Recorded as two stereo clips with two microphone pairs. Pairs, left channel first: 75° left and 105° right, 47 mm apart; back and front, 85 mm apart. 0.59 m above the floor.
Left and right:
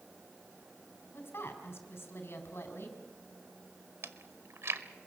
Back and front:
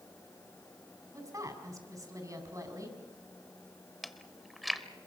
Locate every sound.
1.1 s a woman speaking: 50° left, 4.5 m
4.0 s chewing: 90° right, 1.1 m